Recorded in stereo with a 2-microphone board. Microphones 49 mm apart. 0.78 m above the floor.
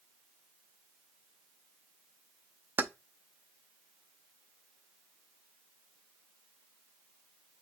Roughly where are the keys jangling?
Right.